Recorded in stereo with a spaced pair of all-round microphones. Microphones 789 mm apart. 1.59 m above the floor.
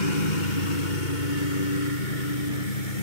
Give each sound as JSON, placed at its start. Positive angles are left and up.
{"t": 0.0, "sound": "a lawn mower", "side_deg": 70}